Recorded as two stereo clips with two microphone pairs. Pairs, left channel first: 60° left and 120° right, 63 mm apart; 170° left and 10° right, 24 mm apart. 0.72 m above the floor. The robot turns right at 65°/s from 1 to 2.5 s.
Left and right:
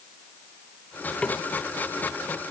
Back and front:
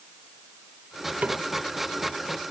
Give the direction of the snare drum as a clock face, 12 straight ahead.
12 o'clock.